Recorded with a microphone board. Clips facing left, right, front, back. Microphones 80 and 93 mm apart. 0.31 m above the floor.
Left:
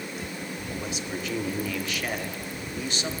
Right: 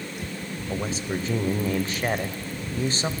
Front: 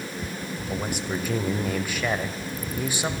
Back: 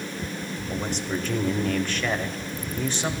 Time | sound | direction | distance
0.7 | a man speaking | 75° right | 1.0 m